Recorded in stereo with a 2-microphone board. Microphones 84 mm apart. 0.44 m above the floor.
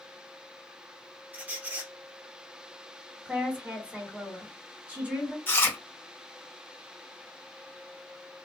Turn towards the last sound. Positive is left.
turn(degrees=25)  # may be behind; listen again after turning